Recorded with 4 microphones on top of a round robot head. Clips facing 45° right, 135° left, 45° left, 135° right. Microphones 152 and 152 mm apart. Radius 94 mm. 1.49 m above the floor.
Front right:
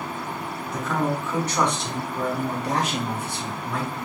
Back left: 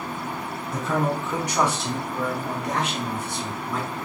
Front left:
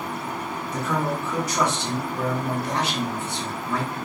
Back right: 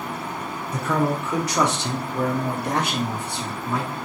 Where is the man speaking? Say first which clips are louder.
Back left 1 dB, back right 3 dB; 170° right, 1.0 m; by 4.0 s 65° right, 1.1 m.